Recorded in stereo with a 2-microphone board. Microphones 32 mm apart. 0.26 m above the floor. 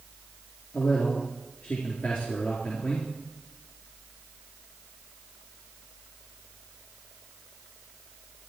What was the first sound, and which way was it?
A man speaking, 75° left (ahead or behind).